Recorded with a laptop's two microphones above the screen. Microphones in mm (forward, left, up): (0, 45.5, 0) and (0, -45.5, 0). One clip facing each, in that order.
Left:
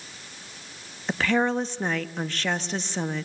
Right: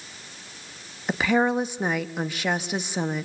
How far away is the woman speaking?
About 1.2 m.